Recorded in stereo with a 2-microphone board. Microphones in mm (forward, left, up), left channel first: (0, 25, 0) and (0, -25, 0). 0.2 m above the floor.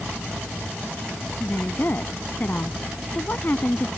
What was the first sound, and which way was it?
A woman speaking, 45° left (ahead or behind).